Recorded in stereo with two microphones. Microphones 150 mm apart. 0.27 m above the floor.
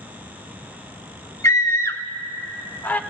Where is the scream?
20° left (ahead or behind), 1.1 m; by 3.0 s 10° left (ahead or behind), 1.7 m.